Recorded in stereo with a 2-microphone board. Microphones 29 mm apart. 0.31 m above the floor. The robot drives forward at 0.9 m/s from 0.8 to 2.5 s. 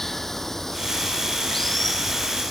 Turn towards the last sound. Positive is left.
turn(degrees=10)  # may be behind; listen again after turning